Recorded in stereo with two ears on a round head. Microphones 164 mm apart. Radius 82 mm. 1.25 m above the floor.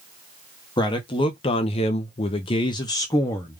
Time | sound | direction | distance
0.8 | a man speaking | 20° left (ahead or behind) | 0.9 m